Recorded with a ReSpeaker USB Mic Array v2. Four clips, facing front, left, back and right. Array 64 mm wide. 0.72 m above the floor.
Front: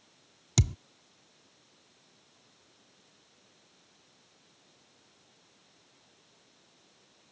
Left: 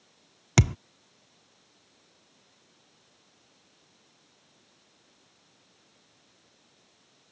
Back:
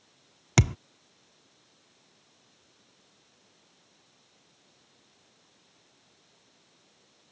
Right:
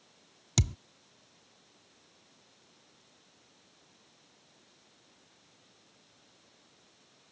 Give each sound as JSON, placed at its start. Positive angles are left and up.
{"t": 0.6, "sound": "a thud", "azimuth_deg": 135}